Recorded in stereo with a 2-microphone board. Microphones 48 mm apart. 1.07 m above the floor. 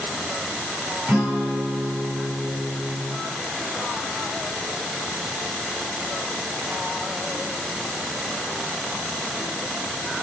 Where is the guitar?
40° right (ahead or behind), 5 m.